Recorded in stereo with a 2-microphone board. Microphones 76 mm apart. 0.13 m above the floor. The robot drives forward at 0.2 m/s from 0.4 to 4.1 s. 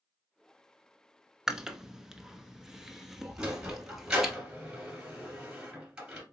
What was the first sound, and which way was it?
Chewing, 5° right (ahead or behind).